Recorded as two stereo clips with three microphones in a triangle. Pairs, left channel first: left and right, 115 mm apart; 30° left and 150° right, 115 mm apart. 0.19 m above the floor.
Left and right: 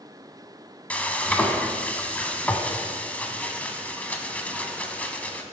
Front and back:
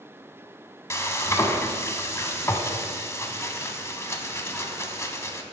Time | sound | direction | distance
0.9 | frying | 30° left | 0.9 m